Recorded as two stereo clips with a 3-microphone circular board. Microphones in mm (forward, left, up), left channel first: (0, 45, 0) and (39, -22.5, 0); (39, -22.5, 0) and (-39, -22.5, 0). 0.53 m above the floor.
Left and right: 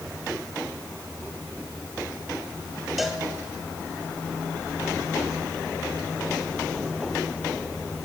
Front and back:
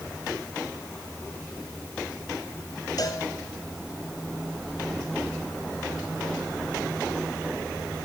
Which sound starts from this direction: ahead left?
A cowbell, at 3.0 s.